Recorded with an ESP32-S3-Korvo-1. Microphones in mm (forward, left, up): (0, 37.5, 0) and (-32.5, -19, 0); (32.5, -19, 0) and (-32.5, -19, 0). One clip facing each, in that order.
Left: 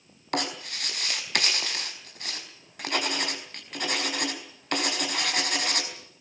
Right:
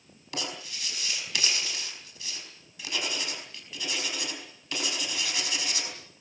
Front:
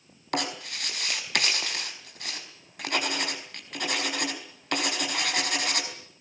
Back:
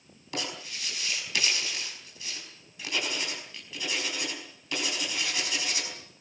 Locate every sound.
0.3 s writing: 25° left, 4.5 m